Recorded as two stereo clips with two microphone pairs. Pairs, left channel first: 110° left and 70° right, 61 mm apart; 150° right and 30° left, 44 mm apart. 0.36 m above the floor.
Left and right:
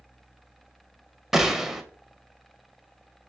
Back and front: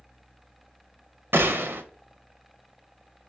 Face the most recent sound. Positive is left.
turn(degrees=15)